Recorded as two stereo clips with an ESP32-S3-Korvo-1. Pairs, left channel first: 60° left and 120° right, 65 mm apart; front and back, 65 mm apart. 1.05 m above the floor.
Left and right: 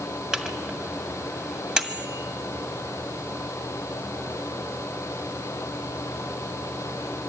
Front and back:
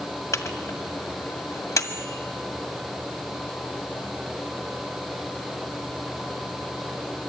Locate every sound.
0.3 s a microwave: 40° right, 2.0 m